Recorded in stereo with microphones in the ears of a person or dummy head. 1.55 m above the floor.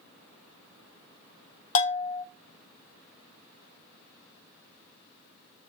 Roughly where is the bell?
Left.